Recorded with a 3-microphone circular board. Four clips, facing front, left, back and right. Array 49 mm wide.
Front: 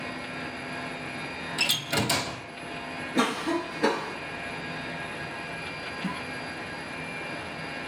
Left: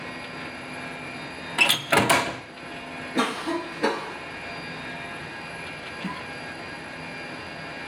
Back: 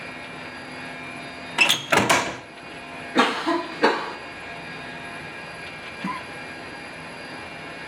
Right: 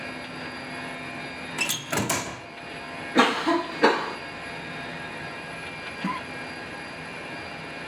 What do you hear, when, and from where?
1.6 s a door slam: 150° left, 1.4 m
3.1 s a cough: 140° right, 1.0 m
6.0 s a cough: 135° right, 1.5 m